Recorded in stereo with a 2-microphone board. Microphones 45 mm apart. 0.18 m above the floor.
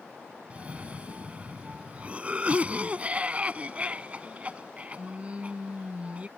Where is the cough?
30° right (ahead or behind).